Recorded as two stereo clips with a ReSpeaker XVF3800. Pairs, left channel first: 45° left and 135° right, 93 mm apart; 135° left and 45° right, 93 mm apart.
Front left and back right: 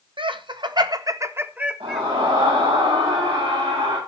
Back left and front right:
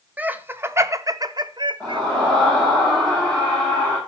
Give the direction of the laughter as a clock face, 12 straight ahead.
4 o'clock.